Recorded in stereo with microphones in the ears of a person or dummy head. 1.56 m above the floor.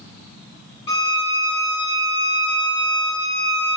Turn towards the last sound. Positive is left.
turn(degrees=30)  # may be behind; listen again after turning